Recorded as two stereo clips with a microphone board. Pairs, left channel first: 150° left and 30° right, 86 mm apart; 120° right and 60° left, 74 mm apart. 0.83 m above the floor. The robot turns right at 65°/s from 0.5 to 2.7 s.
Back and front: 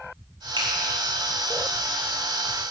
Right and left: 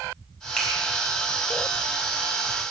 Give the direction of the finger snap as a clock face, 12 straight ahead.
1 o'clock.